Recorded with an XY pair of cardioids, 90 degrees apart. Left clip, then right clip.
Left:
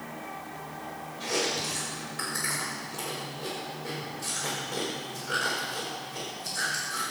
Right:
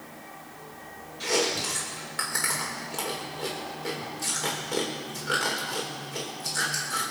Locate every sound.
1.2 s chewing: 70° right, 5 m